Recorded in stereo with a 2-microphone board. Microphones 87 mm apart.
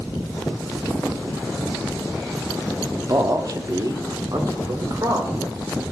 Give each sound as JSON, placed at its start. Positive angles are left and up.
{"t": 2.9, "sound": "a man speaking", "side_deg": -40, "distance_m": 1.0}